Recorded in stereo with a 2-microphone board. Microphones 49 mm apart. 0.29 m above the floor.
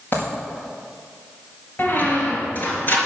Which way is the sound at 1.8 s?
40° left (ahead or behind).